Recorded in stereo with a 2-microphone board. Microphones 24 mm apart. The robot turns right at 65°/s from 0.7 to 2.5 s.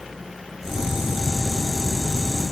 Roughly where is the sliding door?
No sliding door in this recording.